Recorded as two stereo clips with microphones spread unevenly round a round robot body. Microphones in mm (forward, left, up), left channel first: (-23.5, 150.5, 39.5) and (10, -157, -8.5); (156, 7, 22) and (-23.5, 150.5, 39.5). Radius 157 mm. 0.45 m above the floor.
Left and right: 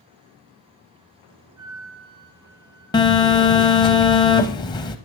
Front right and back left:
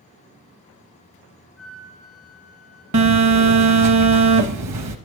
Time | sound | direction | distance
1.6 | a flute | 130° right | 4.5 m
2.9 | a phone buzzing | 170° left | 0.6 m